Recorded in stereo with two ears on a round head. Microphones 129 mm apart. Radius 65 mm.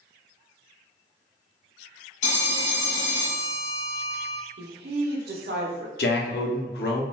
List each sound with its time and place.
2.2 s a phone ringing: 50° left (ahead or behind), 0.7 m
4.6 s a woman speaking: 80° right, 0.7 m
6.0 s a man speaking: 75° left (ahead or behind), 0.7 m